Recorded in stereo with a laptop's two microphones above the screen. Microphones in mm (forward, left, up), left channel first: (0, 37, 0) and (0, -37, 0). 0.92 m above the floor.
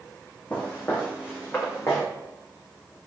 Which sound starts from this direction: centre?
Footsteps, at 0.5 s.